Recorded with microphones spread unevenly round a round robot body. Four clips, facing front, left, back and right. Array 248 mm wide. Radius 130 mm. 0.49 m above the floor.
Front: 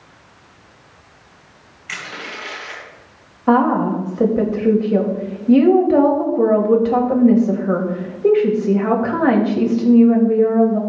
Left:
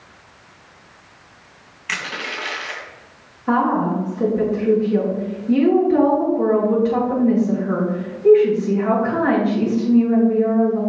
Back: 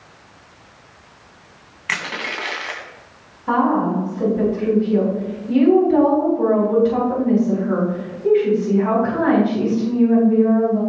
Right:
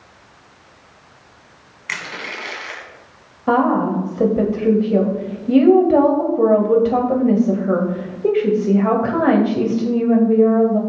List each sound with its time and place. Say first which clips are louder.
1.9 s crushing: left 1 dB, back 5 dB; 175° left, 2.5 m
3.5 s a woman speaking: right 2 dB, front 3 dB; 50° right, 2.5 m